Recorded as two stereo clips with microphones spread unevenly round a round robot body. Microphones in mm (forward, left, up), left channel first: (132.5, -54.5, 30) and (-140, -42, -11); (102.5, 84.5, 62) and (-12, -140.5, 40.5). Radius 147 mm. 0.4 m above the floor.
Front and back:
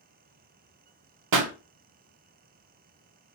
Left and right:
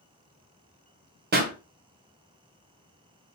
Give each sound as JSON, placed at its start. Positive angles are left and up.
{"t": 1.3, "sound": "a pop", "azimuth_deg": -170, "distance_m": 0.7}